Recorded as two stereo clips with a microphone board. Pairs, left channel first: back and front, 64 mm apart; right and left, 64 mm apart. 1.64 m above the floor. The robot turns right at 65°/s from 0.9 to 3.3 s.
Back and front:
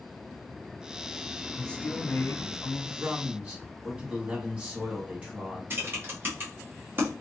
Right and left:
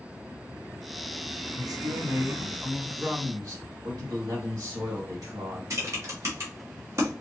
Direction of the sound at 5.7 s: 50° left.